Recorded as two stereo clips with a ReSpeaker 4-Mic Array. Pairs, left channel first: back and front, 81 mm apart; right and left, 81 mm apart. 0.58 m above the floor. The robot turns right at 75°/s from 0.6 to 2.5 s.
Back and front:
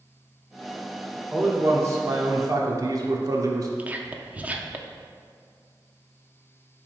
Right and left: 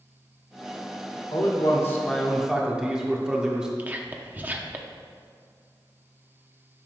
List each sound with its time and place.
1.3 s a man speaking: 80° right, 1.1 m; by 3.7 s 10° left, 1.1 m
3.8 s whispering: 45° left, 0.7 m